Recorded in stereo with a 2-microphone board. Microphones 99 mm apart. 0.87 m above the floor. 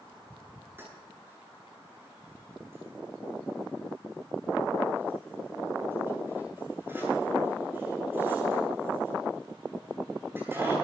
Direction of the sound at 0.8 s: 25° right (ahead or behind).